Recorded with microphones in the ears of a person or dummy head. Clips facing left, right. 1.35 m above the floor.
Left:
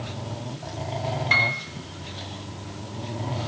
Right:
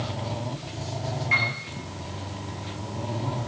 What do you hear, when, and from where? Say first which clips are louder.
1.3 s a piano: left 3 dB; 85° left, 4 m